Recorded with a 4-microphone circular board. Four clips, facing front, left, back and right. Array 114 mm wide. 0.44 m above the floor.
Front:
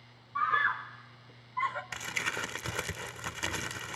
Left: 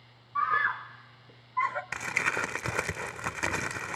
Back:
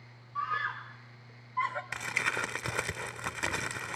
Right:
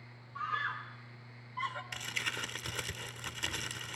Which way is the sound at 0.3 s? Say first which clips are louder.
Left 9 dB, front 5 dB; 65° left.